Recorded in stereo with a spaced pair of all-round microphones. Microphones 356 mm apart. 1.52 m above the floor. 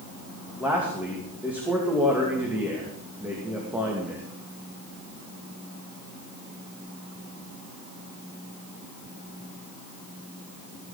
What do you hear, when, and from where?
0.6 s a man speaking: 5° right (ahead or behind), 2.5 m